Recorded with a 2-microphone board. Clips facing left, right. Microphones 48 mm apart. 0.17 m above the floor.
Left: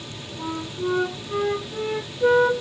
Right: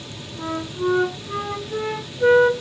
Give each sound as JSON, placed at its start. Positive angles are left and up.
{"t": 0.4, "sound": "a flute", "side_deg": -55, "distance_m": 0.9}